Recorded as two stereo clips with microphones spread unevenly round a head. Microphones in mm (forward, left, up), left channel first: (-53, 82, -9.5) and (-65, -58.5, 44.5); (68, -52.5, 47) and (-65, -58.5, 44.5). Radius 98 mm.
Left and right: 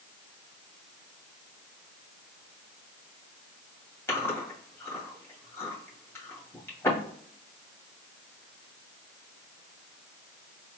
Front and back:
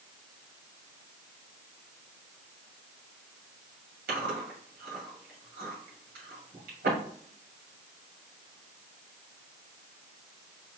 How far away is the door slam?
No door slam in this recording.